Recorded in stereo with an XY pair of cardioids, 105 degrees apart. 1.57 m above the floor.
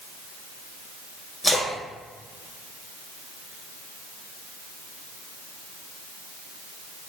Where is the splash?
Straight ahead, 1.8 m.